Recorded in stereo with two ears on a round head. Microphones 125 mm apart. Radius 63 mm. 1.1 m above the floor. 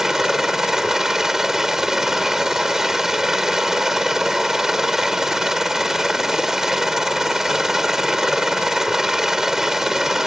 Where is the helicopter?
5° right (ahead or behind).